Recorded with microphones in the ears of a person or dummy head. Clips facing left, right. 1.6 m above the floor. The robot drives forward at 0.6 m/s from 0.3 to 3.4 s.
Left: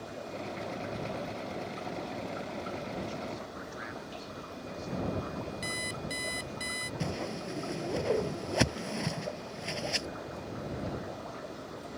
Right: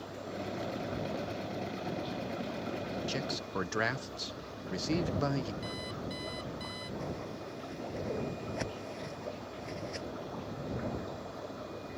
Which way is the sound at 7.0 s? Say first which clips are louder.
Left 7 dB; 80° left.